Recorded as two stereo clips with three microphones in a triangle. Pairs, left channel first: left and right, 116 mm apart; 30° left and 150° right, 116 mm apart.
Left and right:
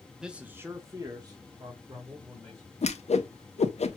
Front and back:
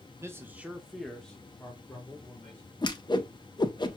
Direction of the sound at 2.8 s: 75° left.